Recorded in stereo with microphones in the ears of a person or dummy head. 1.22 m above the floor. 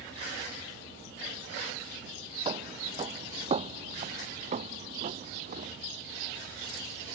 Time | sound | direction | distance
2.5 | footsteps | 35° right (ahead or behind) | ?